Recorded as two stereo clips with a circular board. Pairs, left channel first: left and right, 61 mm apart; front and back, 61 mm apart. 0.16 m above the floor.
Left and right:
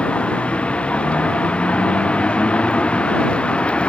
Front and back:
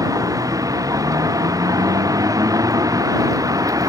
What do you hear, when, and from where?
0.0 s a vehicle: 165° left